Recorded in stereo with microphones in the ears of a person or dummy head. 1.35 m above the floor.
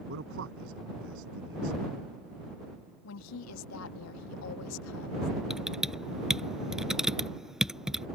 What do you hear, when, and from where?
0.1 s a man speaking: 65° right (ahead or behind)
3.0 s a woman speaking: 75° left (ahead or behind)
5.5 s typing on a keyboard: centre (ahead or behind)